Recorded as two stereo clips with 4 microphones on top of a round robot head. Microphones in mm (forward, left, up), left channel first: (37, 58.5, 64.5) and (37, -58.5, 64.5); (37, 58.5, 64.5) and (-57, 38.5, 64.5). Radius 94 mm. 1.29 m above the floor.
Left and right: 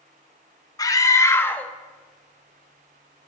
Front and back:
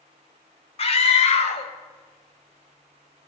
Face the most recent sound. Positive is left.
turn(degrees=-35)